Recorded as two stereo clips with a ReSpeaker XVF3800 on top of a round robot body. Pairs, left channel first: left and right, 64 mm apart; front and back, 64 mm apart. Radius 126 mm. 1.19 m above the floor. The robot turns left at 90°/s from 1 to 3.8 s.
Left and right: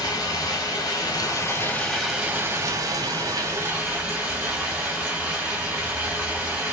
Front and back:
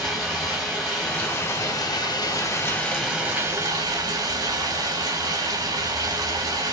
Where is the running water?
90° left, 1.3 m; by 6.7 s 165° right, 1.3 m.